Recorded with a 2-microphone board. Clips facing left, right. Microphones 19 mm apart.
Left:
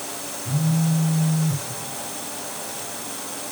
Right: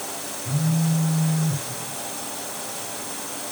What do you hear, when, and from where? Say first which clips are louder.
0.5 s a phone buzzing: left 1 dB; 20° left (ahead or behind), 5 m